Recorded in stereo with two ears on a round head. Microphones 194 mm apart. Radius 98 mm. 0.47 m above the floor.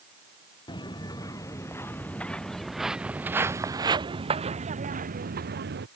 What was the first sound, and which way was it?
Footsteps, 20° left (ahead or behind).